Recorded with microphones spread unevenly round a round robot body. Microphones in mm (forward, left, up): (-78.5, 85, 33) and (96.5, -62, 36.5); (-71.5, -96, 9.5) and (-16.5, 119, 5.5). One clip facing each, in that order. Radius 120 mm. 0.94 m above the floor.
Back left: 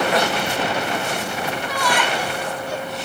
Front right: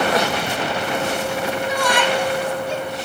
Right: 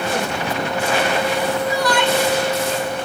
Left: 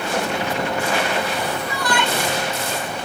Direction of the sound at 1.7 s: 25° left.